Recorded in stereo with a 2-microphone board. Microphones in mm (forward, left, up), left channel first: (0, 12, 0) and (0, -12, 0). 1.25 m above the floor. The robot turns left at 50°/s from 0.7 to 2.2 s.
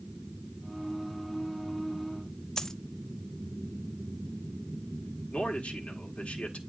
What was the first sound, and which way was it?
A dropped coin, 25° left (ahead or behind).